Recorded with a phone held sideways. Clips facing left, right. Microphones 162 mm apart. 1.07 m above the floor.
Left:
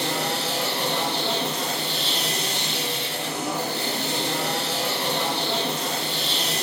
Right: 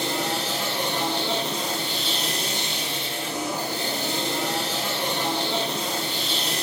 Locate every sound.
0.0 s a machine running: 70° left (ahead or behind), 1.9 m